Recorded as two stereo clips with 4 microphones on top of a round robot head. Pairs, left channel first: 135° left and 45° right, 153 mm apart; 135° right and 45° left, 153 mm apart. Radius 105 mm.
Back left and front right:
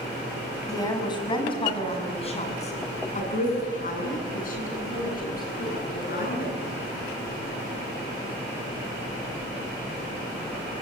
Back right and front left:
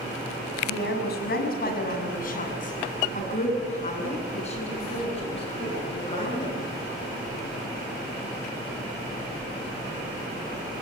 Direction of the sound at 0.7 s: 155° right.